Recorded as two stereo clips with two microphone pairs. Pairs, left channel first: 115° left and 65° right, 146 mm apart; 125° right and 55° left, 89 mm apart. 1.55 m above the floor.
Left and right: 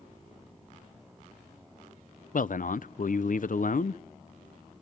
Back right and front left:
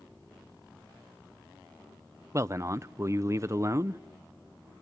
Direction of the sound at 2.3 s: 110° left.